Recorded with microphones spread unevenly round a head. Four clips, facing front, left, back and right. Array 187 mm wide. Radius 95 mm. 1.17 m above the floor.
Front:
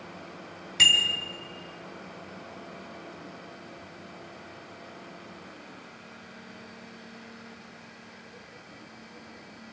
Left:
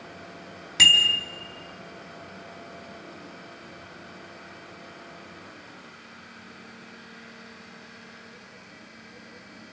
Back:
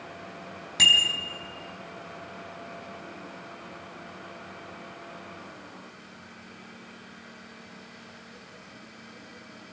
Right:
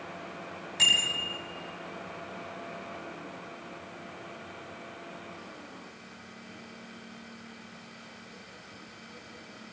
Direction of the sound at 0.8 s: 140° left.